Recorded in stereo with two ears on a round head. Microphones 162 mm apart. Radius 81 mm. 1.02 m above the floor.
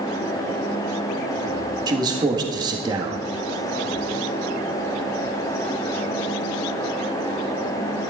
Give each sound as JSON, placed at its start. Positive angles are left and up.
{"t": 1.9, "sound": "a man speaking", "side_deg": -20, "distance_m": 1.8}